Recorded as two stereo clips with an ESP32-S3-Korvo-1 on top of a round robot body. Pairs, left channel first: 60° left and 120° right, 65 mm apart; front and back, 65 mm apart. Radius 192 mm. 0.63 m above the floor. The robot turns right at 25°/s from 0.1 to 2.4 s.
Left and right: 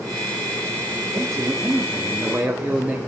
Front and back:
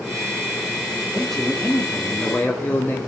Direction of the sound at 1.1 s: 90° right.